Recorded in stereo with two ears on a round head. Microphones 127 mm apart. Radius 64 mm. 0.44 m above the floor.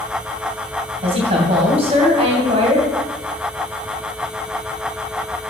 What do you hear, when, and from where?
1.0 s a woman speaking: 45° right (ahead or behind), 2.5 m